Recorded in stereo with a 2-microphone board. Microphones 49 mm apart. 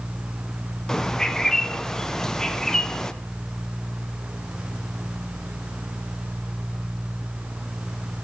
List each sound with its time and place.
0.9 s a bird: 10° left (ahead or behind), 0.5 m